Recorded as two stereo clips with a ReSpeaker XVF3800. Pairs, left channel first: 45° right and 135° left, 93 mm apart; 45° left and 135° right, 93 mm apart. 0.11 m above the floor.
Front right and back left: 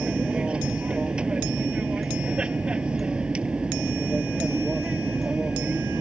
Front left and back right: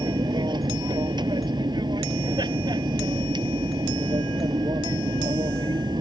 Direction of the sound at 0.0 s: 145° right.